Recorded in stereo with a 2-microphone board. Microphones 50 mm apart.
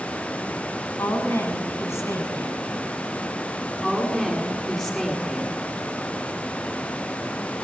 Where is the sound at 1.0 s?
60° left (ahead or behind), 6.5 m.